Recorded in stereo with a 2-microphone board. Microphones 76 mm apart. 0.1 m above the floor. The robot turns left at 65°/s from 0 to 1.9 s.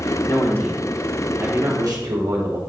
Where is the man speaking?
45° left, 4 m; by 2.6 s 60° right, 4 m.